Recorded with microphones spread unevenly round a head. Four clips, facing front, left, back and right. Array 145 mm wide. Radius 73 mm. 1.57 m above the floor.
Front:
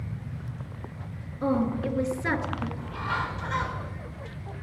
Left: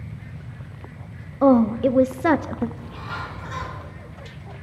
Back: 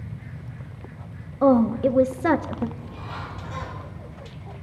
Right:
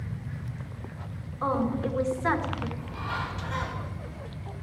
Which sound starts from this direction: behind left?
A woman speaking, at 1.4 s.